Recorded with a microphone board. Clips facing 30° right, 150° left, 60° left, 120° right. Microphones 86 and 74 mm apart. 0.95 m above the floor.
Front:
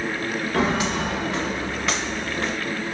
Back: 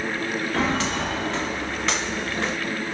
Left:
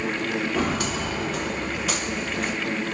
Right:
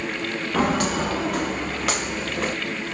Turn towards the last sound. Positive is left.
turn(degrees=-120)